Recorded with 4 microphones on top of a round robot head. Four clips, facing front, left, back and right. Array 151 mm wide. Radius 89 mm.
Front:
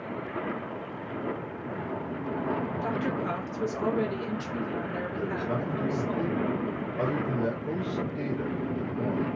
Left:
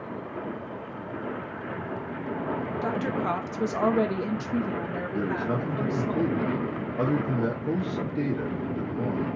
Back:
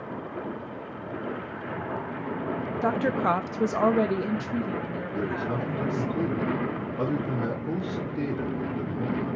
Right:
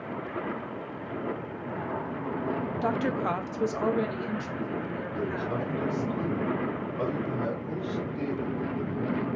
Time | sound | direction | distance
2.8 | a woman speaking | 155° right | 0.8 m
5.1 | a man speaking | 95° left | 1.9 m